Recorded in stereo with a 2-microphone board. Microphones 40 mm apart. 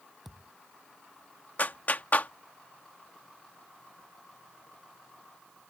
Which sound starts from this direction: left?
A clap, at 1.6 s.